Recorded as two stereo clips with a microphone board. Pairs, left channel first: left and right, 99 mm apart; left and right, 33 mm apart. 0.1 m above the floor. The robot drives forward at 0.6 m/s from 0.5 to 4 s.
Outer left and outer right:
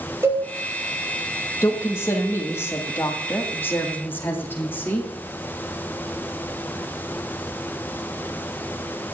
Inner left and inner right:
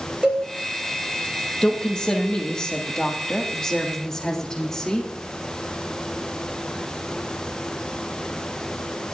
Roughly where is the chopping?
I don't hear chopping.